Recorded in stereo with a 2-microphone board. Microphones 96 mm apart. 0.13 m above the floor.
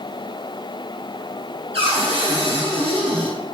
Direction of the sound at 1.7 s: 75° right (ahead or behind).